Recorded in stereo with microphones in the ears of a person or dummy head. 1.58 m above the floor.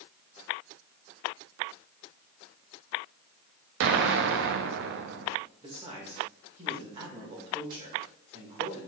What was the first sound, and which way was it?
An explosion, 65° right (ahead or behind).